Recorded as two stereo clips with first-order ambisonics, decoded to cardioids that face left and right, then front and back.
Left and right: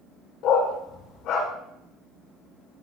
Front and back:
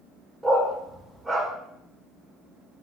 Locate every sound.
0.4 s a dog barking: 105° left, 1.6 m